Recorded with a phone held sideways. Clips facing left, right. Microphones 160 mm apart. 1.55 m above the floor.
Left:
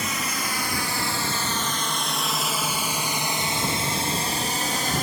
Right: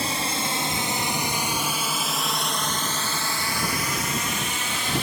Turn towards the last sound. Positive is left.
turn(degrees=45)  # may be behind; listen again after turning